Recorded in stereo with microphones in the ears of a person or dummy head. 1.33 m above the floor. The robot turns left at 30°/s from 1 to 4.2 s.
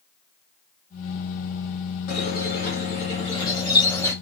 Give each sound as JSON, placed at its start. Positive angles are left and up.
{"t": 2.1, "sound": "a squeak", "azimuth_deg": 75, "distance_m": 1.0}